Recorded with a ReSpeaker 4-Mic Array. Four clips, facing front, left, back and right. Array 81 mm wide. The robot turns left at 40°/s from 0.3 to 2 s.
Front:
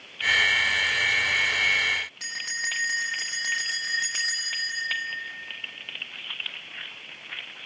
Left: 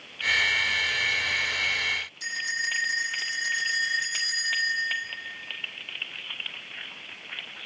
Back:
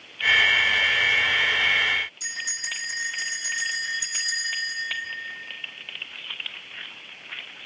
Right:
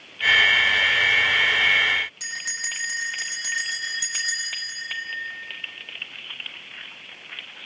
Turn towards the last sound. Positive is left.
turn(degrees=-15)